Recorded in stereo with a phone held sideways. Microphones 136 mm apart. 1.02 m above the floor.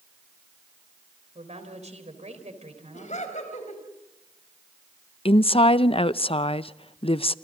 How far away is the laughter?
About 4.5 m.